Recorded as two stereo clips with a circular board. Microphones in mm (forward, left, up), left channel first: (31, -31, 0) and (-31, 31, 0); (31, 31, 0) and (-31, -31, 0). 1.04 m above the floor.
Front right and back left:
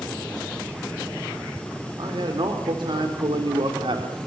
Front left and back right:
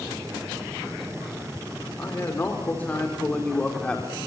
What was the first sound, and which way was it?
A man speaking, 110° left.